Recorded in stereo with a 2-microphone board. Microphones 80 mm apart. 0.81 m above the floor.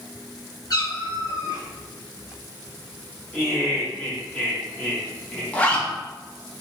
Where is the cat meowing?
55° left (ahead or behind), 1.7 m.